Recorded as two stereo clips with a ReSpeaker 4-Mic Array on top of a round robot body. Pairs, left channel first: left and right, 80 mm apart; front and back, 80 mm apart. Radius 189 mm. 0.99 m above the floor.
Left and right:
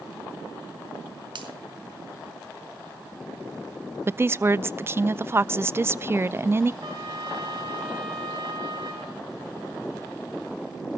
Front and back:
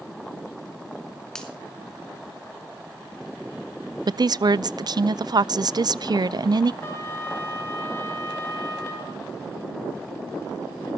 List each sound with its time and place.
1.4 s a finger snap: 80° right, 3.5 m
4.1 s a woman speaking: 150° right, 0.6 m
6.8 s a trumpet: 60° right, 5.5 m